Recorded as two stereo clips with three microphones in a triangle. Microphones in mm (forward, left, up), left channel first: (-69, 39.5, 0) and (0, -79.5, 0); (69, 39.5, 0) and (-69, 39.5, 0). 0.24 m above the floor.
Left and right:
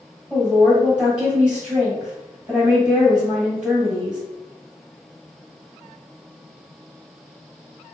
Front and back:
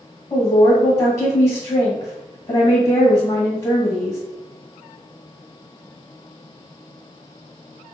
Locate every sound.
0.3 s a woman speaking: 15° left, 1.5 m